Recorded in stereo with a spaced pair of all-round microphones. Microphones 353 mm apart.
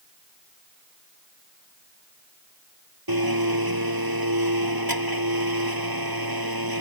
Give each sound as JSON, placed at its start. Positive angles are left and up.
{"t": 3.1, "sound": "a blender", "side_deg": -80}